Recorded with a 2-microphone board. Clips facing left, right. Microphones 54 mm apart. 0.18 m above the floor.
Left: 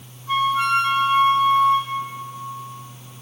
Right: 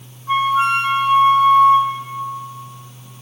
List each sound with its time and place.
0.3 s a flute: 20° right (ahead or behind), 2.5 m